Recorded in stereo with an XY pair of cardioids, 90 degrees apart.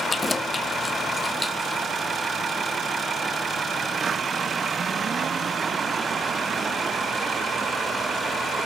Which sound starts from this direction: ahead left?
Keys jangling, at 0.1 s.